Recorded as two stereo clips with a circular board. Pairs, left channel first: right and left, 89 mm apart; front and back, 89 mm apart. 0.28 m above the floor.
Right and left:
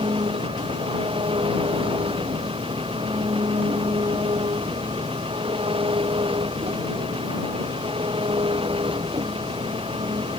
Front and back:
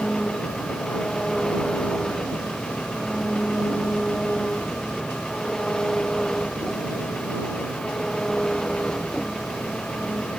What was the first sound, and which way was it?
An engine running, 80° left.